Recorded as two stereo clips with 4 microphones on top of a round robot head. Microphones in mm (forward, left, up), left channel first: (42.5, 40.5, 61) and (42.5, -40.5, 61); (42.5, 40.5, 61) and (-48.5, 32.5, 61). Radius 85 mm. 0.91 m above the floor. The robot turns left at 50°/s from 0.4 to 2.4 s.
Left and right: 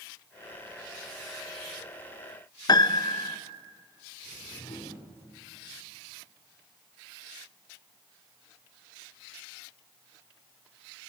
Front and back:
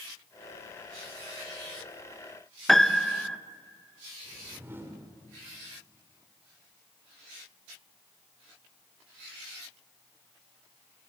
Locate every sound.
2.7 s a piano: 90° left, 1.1 m
4.2 s a whoosh: 120° left, 4 m